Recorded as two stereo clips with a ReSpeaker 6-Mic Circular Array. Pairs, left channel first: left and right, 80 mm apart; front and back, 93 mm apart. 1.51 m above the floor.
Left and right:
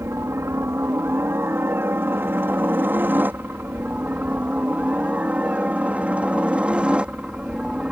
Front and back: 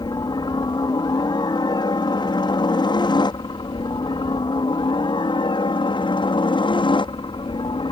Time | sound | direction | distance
0.0 | a helicopter | 35° right | ?